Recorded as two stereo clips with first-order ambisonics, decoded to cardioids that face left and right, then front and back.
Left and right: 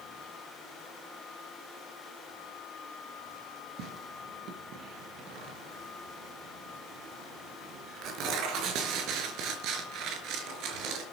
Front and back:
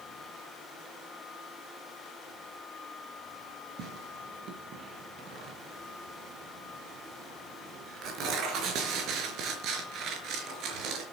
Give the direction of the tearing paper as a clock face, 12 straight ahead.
4 o'clock.